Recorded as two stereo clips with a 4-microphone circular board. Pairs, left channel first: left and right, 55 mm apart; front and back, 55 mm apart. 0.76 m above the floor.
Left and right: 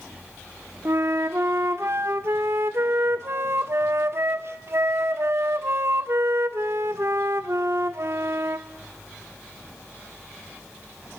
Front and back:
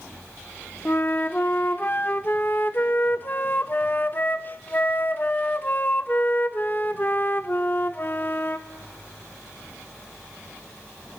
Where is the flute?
55° right, 0.8 m.